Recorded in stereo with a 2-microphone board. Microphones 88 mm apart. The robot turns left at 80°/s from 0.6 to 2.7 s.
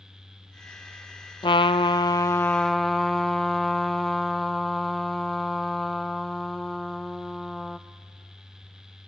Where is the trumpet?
105° left, 0.6 m; by 7.8 s 5° left, 0.6 m.